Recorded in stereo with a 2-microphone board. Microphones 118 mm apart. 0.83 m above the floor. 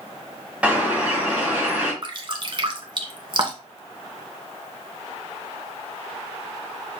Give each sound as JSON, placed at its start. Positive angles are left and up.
{"t": 0.6, "sound": "a bird", "side_deg": -10, "distance_m": 4.5}
{"t": 2.0, "sound": "dripping", "side_deg": -45, "distance_m": 1.5}